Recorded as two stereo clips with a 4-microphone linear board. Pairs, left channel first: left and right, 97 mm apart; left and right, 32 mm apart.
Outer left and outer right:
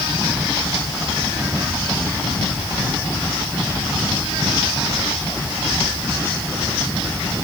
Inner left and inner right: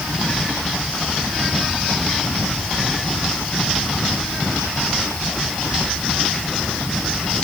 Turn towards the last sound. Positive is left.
No sound to turn to.